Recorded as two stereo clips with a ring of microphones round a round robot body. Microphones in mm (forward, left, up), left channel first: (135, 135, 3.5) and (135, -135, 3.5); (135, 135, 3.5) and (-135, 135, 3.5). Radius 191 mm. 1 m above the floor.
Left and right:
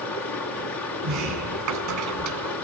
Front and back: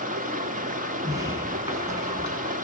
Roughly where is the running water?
Behind left.